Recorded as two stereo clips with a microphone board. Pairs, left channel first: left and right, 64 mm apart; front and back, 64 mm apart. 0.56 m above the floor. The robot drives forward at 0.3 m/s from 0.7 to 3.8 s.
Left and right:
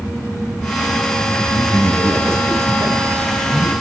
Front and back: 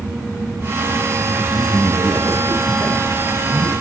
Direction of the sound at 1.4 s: 40° right.